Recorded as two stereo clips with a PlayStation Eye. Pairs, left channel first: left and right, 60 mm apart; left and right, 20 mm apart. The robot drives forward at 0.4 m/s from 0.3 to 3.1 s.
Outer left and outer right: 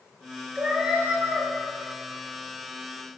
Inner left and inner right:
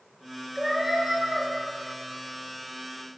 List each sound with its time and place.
0.6 s a cat meowing: 15° right (ahead or behind), 2 m; by 1.5 s 20° right (ahead or behind), 1.7 m